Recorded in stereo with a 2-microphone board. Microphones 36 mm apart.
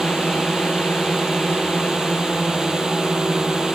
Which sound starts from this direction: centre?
A drone, at 0.0 s.